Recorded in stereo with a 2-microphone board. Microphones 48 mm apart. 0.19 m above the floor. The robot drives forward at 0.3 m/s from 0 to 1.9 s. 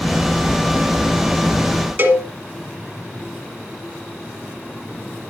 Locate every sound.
2.0 s a cowbell: 45° right (ahead or behind), 1.3 m